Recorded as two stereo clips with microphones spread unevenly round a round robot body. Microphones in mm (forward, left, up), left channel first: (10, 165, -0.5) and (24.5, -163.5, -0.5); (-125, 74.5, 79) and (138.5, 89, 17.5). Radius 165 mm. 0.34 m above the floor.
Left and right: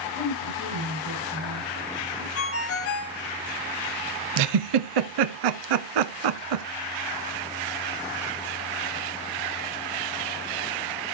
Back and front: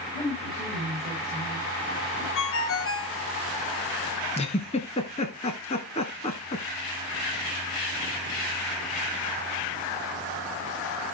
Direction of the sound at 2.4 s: 140° left.